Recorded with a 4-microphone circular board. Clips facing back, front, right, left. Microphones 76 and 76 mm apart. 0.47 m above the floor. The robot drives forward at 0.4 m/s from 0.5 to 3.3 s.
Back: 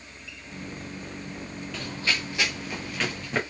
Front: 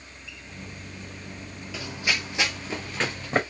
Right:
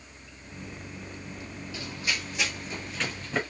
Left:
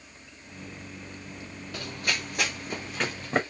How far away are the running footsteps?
About 0.7 m.